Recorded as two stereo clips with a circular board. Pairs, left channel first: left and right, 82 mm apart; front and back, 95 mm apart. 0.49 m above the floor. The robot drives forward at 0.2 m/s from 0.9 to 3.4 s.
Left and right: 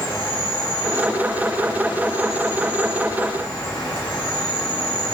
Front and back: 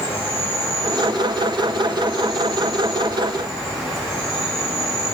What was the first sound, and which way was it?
An insect, 70° left.